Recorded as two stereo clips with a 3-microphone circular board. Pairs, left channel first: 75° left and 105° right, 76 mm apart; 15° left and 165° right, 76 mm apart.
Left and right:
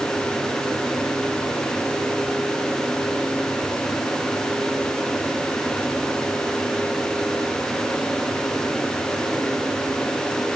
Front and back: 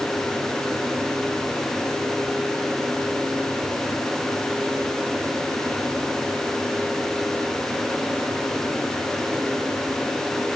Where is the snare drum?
I don't hear a snare drum.